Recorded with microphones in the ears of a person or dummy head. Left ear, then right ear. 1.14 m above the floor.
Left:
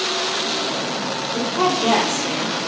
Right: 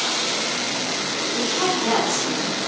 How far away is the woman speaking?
About 1.2 m.